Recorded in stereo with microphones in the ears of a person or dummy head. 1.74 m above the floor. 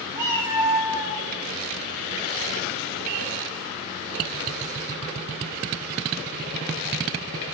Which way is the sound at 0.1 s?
20° right (ahead or behind).